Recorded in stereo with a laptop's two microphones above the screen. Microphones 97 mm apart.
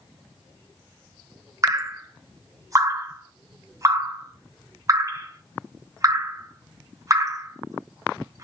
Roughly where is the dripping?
Right.